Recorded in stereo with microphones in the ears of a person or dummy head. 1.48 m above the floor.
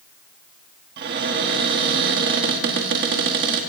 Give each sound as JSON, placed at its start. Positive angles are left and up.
{"t": 1.0, "sound": "a cupboard door", "side_deg": -50, "distance_m": 1.4}